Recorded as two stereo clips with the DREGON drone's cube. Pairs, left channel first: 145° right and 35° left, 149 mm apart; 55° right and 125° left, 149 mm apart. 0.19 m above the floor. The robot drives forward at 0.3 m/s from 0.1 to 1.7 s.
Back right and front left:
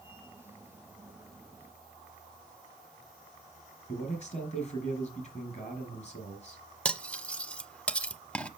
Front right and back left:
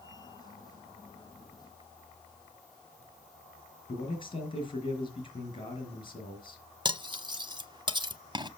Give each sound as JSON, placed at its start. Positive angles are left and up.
{"t": 3.9, "sound": "a man speaking", "azimuth_deg": -110, "distance_m": 3.5}
{"t": 6.8, "sound": "cutlery clinking", "azimuth_deg": 140, "distance_m": 0.8}